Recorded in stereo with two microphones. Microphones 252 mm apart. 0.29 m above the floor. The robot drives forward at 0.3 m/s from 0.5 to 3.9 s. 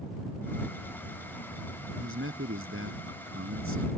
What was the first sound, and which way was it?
A man speaking, 55° right (ahead or behind).